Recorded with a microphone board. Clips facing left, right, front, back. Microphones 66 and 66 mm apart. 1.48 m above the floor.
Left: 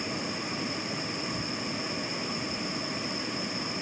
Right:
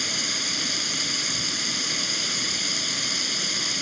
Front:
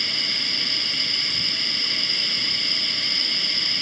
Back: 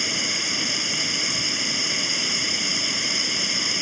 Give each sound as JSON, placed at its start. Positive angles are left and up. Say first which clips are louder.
{"t": 0.0, "sound": "running water", "louder": "right 1 dB, back 2 dB", "azimuth_deg": -105}